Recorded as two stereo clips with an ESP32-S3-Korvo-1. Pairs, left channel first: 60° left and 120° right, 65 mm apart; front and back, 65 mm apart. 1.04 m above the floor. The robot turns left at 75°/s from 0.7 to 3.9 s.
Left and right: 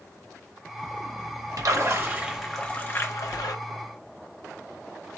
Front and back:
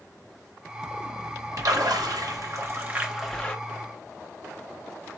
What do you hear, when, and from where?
1.6 s a splash: 145° right, 0.7 m; by 3.5 s 70° left, 0.7 m